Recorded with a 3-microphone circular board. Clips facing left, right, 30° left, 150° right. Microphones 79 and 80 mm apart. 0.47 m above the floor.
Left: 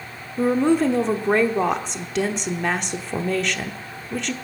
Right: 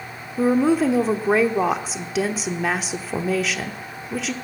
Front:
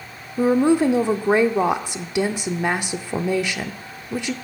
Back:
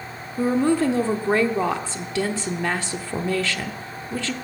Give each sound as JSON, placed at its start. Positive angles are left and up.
{"t": 0.4, "sound": "a woman speaking", "azimuth_deg": -10, "distance_m": 0.9}